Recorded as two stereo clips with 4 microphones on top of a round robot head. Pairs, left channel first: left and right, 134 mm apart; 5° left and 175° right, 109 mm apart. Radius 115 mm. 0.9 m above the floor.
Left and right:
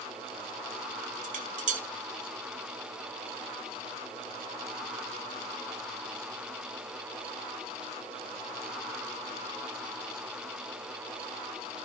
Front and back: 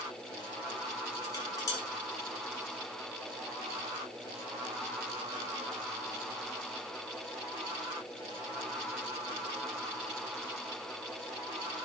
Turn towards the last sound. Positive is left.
turn(degrees=-65)